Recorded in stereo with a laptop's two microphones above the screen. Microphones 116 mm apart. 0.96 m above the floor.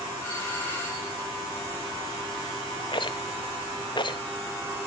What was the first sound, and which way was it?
A doorbell, 20° left (ahead or behind).